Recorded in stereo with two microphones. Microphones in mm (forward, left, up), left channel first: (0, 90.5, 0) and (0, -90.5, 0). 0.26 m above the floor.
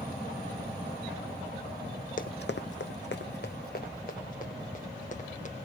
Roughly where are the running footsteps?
Left.